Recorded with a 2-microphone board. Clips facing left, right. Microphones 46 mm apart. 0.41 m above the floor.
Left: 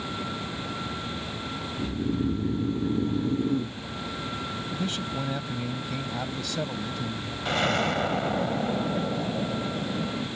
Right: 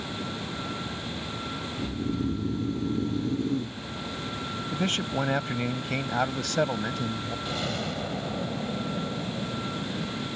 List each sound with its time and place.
1.8 s snoring: 25° left (ahead or behind)
4.7 s a man speaking: 60° right (ahead or behind)
7.5 s an explosion: 60° left (ahead or behind)